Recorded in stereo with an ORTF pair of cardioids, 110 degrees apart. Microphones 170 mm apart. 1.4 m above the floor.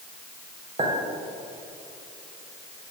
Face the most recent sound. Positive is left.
turn(degrees=-35)